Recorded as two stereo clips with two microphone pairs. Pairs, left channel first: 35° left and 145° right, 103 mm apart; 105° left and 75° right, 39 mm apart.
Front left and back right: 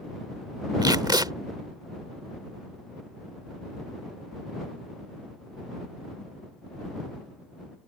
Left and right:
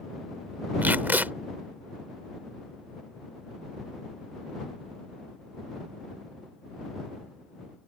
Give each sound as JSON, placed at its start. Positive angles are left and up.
{"t": 0.8, "sound": "tape being pulled", "azimuth_deg": -100}